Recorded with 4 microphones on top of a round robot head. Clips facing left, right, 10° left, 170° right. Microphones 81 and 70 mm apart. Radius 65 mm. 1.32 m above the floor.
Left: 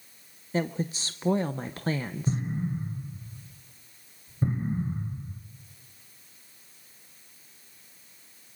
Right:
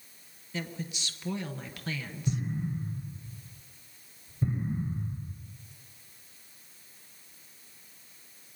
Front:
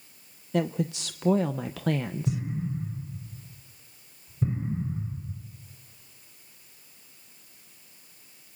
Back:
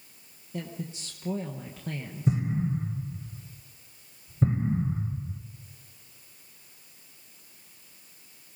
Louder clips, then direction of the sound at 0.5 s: Left 9 dB, front 10 dB; 35° left.